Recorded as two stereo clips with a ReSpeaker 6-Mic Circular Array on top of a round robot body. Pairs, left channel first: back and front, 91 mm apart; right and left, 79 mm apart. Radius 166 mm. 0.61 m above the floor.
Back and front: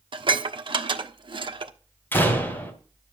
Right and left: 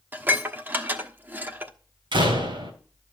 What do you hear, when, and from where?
0.1 s dishes clattering: 25° left, 1.2 m
2.1 s a door slam: 110° left, 3.5 m